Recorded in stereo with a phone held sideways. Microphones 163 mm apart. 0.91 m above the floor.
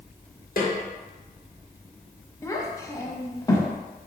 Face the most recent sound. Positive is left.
turn(degrees=20)  # may be behind; listen again after turning